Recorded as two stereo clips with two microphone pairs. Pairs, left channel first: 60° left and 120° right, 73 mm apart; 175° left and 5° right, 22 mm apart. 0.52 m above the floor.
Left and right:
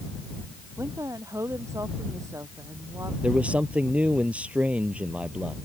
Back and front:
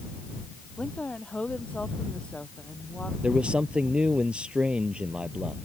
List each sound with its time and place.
0.8 s a woman speaking: 165° right
3.2 s a man speaking: 45° right